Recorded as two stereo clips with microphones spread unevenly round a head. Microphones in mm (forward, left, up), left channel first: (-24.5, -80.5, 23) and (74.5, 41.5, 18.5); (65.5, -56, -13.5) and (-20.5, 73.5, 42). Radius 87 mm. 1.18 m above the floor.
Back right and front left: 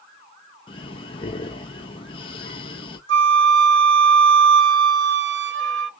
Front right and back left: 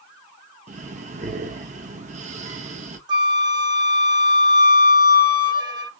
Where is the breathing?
170° left, 0.8 m.